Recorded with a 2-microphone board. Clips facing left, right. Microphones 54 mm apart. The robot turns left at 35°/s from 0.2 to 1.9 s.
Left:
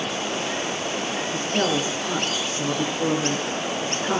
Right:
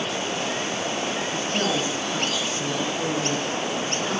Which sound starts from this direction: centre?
A woman speaking, at 1.2 s.